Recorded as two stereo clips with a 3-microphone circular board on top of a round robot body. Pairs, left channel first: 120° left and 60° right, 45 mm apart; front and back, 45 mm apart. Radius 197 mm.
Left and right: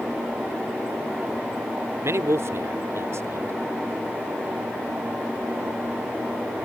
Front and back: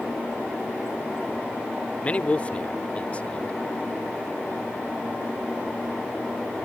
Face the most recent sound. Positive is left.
turn(degrees=-60)